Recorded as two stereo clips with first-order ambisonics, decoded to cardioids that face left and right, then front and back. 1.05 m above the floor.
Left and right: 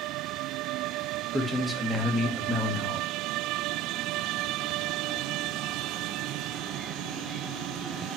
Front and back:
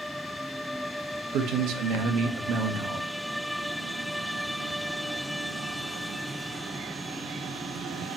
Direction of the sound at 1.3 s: 175° right.